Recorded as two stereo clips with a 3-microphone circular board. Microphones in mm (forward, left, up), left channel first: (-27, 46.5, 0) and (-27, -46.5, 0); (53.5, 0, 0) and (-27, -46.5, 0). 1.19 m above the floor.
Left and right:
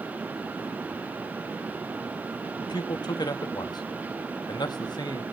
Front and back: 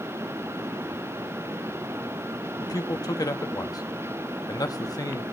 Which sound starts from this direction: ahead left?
A man speaking, at 2.6 s.